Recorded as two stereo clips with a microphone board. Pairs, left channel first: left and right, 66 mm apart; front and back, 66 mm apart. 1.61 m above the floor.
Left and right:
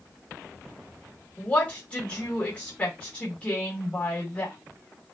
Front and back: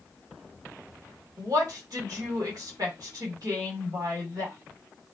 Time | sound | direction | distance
1.4 | a woman speaking | 160° left | 1.9 m